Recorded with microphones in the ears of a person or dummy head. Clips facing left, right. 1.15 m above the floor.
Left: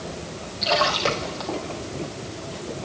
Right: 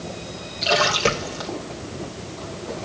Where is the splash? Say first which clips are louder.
Right 2 dB; 30° right (ahead or behind), 2.5 m.